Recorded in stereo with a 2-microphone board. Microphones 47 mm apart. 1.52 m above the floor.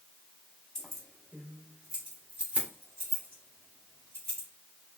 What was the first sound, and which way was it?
Keys jangling, 10° left (ahead or behind).